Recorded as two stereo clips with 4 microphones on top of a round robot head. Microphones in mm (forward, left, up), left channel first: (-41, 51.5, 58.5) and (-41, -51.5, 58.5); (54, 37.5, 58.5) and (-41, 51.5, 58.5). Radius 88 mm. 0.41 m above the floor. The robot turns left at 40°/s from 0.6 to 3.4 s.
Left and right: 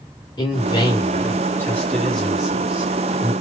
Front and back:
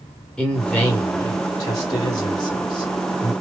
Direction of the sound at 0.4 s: 70° left.